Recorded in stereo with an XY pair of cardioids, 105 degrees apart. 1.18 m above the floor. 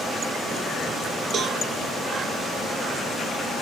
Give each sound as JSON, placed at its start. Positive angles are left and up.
{"t": 1.3, "sound": "a cowbell", "azimuth_deg": -60, "distance_m": 1.4}